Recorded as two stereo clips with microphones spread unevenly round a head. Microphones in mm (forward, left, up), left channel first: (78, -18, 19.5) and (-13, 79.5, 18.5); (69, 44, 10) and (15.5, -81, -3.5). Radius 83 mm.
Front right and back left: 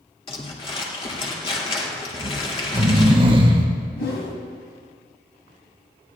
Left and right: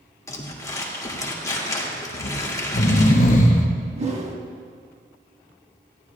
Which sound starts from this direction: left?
Snoring, at 2.1 s.